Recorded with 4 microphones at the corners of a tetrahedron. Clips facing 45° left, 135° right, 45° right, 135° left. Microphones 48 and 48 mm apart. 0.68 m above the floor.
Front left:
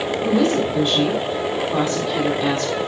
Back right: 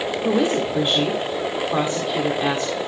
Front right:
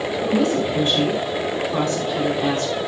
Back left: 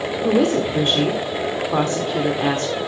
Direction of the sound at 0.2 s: 155° left.